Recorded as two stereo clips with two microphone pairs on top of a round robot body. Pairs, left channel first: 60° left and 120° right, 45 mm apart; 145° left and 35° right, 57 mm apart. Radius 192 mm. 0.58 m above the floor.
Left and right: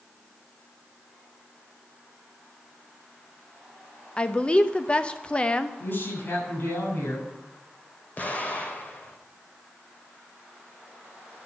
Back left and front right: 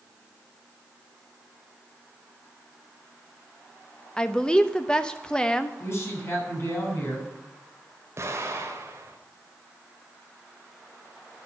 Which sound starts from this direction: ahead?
An explosion, at 8.2 s.